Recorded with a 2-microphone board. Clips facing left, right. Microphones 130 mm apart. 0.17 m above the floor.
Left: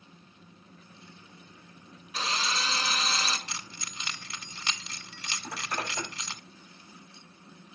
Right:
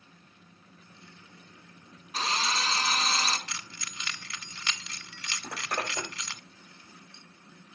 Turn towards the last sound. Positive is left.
turn(degrees=-65)  # may be behind; listen again after turning